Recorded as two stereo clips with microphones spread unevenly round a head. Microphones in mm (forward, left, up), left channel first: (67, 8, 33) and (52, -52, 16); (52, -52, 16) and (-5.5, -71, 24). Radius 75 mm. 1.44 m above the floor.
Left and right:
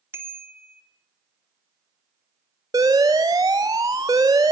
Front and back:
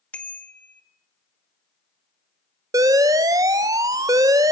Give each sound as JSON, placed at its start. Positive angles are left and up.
{"t": 0.1, "sound": "a bicycle bell", "azimuth_deg": -50, "distance_m": 3.0}
{"t": 2.7, "sound": "an alarm", "azimuth_deg": -175, "distance_m": 0.8}